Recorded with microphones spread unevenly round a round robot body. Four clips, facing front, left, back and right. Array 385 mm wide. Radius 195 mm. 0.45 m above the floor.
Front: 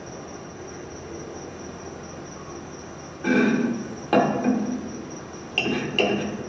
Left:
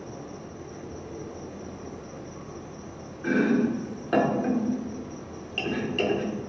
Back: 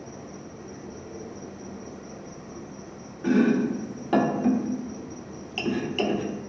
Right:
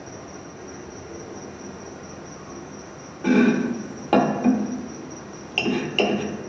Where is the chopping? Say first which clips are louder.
Right 4 dB, front 1 dB; 105° right, 0.7 m.